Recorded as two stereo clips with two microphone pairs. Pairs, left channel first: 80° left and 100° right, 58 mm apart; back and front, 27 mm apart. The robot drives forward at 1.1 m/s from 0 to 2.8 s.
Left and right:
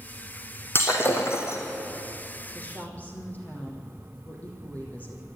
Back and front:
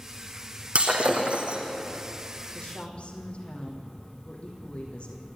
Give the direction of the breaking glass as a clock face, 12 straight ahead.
11 o'clock.